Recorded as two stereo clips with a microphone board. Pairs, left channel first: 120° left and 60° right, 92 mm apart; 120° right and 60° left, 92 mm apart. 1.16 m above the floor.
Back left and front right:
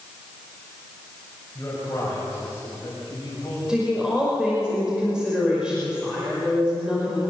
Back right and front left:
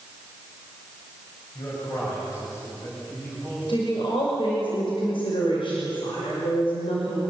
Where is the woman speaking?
140° right, 5.5 m.